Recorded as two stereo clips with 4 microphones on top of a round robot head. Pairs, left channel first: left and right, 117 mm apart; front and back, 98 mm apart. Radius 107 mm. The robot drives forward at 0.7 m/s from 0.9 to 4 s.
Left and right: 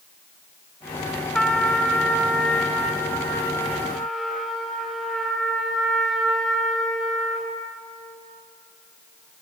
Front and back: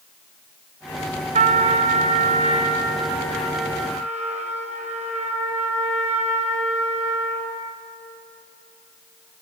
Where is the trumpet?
175° left, 1.1 m; by 7.6 s straight behind, 3 m.